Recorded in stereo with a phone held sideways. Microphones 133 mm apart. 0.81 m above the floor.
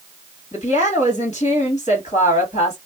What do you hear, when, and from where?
0.5 s a woman speaking: 60° left (ahead or behind), 1.9 m